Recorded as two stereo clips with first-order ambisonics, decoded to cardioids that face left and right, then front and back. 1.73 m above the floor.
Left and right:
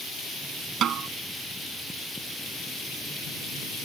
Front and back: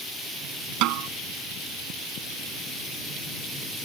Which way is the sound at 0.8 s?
145° right.